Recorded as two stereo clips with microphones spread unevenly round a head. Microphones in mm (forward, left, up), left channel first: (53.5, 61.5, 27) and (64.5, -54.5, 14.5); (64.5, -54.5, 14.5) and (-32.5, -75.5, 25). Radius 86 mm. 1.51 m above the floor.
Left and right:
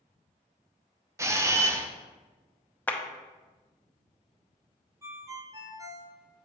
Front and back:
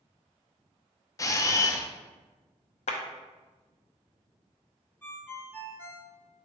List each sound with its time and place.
1.2 s a camera shutter: 25° right, 0.6 m
2.9 s a clap: 25° left, 0.8 m
5.0 s a ringtone: 50° right, 0.8 m